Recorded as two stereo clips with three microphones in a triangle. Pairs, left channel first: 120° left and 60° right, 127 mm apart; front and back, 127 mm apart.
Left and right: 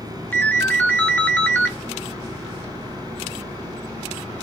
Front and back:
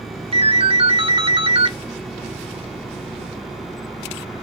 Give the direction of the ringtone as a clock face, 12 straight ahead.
6 o'clock.